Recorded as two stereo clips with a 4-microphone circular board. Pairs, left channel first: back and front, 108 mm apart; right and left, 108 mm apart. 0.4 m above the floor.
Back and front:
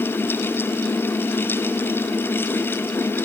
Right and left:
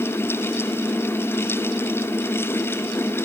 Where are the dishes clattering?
No dishes clattering in this recording.